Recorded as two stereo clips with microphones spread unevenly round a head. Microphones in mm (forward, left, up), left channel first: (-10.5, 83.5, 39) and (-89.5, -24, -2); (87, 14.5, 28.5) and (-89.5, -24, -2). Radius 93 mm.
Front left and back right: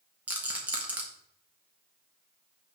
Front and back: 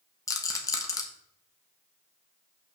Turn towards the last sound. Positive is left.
turn(degrees=-65)